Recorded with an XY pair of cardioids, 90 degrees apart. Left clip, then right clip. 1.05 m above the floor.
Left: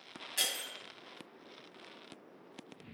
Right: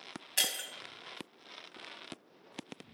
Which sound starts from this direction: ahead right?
Breaking glass, at 0.4 s.